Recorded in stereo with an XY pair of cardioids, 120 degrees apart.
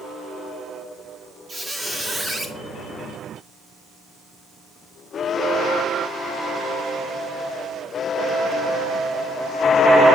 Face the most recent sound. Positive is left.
turn(degrees=-15)